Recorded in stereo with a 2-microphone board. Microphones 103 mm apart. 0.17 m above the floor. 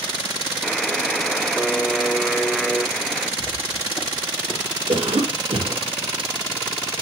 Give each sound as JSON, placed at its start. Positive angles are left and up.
{"t": 0.6, "sound": "a buzzer", "side_deg": 0, "distance_m": 1.0}
{"t": 3.4, "sound": "footsteps", "side_deg": 25, "distance_m": 6.5}
{"t": 4.9, "sound": "a cough", "side_deg": -70, "distance_m": 4.5}